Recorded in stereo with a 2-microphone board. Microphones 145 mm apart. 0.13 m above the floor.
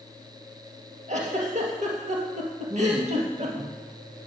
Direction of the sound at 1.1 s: 55° right (ahead or behind).